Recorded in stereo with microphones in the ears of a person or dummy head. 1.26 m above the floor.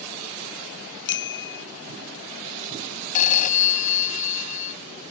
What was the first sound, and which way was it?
A bicycle bell, 65° left (ahead or behind).